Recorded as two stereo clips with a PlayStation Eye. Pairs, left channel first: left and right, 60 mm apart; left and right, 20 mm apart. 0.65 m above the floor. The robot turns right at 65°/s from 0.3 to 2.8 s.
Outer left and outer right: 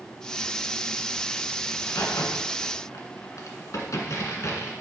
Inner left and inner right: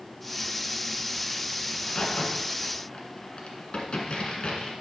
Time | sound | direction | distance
1.7 | a crack | 50° left (ahead or behind) | 1.7 m